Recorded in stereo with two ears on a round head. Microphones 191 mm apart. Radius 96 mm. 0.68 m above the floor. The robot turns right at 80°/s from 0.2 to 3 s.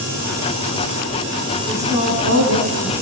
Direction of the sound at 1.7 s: 175° right.